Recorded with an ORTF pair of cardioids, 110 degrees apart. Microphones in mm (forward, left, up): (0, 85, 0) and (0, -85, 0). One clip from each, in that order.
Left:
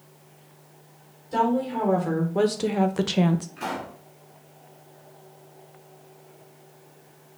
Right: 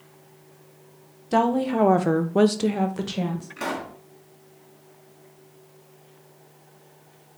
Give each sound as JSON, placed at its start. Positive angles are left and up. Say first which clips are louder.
{"t": 1.3, "sound": "a woman speaking", "louder": "right 2 dB", "azimuth_deg": -65, "distance_m": 1.0}
{"t": 3.6, "sound": "a pop", "louder": "right 2 dB", "azimuth_deg": -45, "distance_m": 1.4}